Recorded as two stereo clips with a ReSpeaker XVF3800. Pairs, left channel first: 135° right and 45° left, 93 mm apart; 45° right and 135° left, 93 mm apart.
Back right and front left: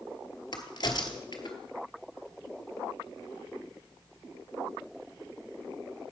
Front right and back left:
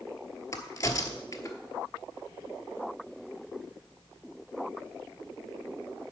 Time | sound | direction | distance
0.5 | a crack | 95° right | 1.1 m